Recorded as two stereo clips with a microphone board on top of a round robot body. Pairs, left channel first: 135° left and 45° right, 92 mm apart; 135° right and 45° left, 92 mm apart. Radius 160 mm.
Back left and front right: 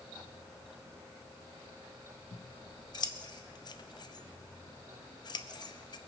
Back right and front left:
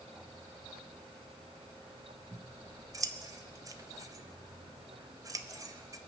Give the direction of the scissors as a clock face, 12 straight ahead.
9 o'clock.